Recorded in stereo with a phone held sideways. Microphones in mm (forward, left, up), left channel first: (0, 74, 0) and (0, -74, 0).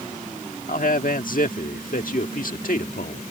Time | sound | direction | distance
0.7 | a man speaking | 70° left (ahead or behind) | ?